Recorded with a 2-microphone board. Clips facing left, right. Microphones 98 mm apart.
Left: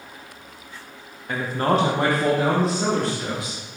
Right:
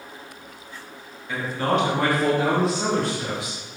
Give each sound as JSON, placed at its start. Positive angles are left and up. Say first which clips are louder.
{"t": 1.3, "sound": "a man speaking", "louder": "left 2 dB", "side_deg": 50, "distance_m": 0.7}